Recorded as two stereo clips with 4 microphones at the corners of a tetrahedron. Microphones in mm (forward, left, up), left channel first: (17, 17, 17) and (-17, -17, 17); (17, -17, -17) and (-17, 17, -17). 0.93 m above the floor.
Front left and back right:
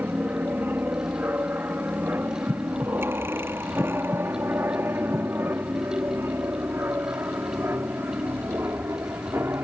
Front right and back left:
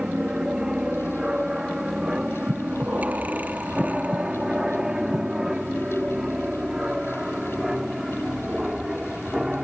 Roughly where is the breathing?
Behind.